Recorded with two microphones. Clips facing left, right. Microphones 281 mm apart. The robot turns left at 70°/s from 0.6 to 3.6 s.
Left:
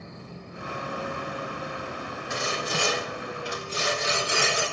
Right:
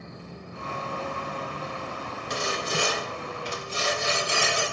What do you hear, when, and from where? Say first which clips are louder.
2.3 s sawing: right 1 dB; 115° right, 2 m; by 4.6 s 155° left, 2 m